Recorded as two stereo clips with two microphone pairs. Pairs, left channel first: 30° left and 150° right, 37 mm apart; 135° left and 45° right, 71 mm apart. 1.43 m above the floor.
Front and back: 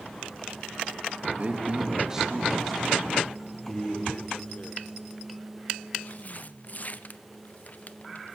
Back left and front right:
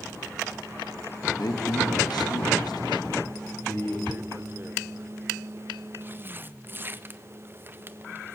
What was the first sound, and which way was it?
A man speaking, 160° left.